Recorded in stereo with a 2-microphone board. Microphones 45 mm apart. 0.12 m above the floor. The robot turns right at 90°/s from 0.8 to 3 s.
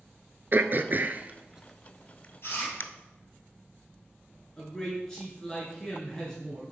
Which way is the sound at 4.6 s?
15° left (ahead or behind).